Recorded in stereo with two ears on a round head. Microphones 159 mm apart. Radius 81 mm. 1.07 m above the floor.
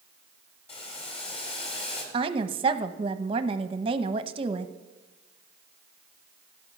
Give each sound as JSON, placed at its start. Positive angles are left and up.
{"t": 0.7, "sound": "boiling", "side_deg": 30, "distance_m": 3.5}
{"t": 2.1, "sound": "a woman speaking", "side_deg": -30, "distance_m": 0.8}